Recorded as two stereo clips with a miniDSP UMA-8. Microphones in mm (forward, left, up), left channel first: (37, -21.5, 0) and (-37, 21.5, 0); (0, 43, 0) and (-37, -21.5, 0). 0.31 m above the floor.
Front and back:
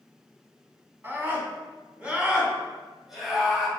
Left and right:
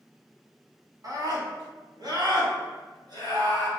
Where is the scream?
150° right, 2.5 m; by 3.7 s 120° right, 3 m.